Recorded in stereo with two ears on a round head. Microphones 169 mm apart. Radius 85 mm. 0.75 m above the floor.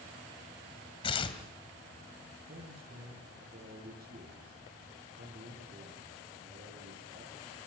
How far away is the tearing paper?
About 2.5 m.